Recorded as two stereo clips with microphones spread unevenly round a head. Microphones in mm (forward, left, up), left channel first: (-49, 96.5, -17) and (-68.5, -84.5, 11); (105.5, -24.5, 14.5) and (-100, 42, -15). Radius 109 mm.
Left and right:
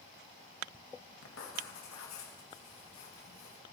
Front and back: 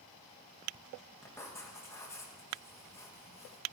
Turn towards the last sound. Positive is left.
turn(degrees=60)